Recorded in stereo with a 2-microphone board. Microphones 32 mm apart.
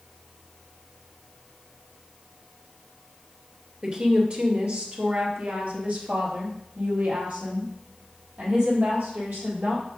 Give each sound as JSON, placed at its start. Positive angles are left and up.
{"t": 3.8, "sound": "a woman speaking", "side_deg": -35, "distance_m": 2.0}